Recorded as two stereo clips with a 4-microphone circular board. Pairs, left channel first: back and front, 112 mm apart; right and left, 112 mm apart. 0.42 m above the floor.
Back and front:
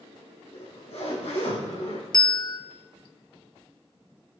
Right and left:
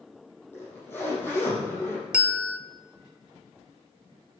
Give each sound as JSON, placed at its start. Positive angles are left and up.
{"t": 0.5, "sound": "a zipper", "azimuth_deg": -160, "distance_m": 6.5}
{"t": 2.1, "sound": "a bell", "azimuth_deg": 165, "distance_m": 0.7}